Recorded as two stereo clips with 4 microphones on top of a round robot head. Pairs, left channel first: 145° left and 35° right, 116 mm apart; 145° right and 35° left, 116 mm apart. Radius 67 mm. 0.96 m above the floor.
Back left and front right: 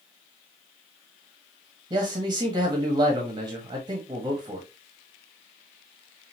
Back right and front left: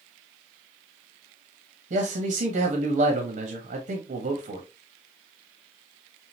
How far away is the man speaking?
About 1.3 m.